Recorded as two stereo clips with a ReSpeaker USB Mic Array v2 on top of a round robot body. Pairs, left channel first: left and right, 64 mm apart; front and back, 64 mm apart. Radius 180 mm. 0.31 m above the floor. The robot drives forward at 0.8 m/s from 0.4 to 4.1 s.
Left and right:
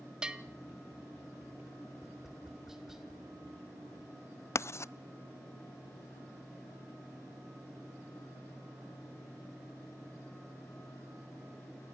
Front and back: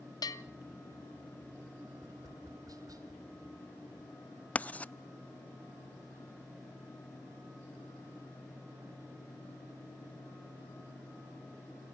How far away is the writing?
About 0.6 m.